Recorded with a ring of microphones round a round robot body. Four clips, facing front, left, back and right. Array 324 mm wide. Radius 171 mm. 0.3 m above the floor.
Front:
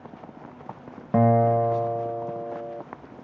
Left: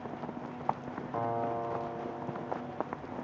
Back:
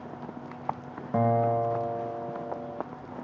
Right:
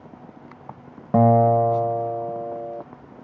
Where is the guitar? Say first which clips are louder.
Right 17 dB, front 5 dB; 70° right.